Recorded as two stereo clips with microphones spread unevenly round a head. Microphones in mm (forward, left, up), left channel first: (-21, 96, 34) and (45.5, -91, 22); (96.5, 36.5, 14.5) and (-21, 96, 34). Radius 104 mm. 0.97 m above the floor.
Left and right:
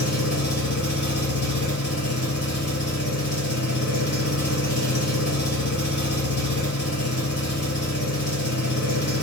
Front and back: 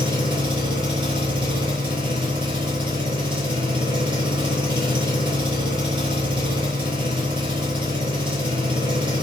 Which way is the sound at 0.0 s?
100° left.